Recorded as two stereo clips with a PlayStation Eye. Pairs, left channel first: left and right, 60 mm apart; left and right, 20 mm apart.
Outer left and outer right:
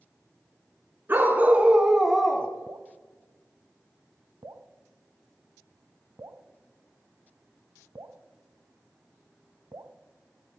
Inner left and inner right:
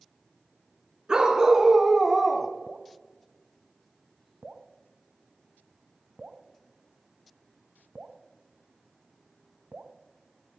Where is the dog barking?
35° right (ahead or behind), 2.5 m; by 2.5 s 25° left (ahead or behind), 1.3 m.